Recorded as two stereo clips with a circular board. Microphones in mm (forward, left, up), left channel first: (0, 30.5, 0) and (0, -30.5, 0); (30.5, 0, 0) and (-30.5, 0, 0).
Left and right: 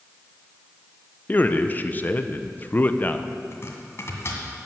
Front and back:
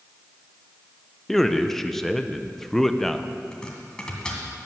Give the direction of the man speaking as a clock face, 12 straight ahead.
9 o'clock.